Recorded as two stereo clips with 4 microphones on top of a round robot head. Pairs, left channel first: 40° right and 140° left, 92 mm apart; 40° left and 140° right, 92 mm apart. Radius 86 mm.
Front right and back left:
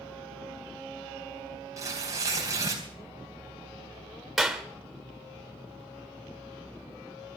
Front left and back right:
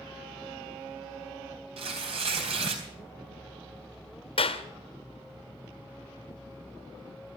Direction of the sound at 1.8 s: 165° right.